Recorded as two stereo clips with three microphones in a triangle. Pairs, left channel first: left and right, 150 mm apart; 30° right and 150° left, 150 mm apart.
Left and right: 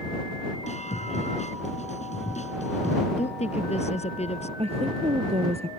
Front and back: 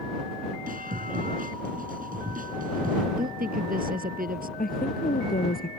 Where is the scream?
130° left.